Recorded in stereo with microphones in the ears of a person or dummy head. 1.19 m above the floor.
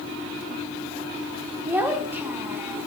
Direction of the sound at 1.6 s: 10° right (ahead or behind).